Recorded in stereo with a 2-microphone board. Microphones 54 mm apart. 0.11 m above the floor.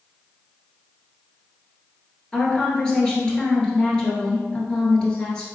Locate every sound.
2.3 s a woman speaking: 15° left (ahead or behind), 1.6 m